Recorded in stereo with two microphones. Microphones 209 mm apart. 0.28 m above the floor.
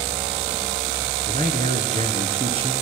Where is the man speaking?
45° right (ahead or behind), 3.5 m; by 2.7 s 30° right (ahead or behind), 4 m.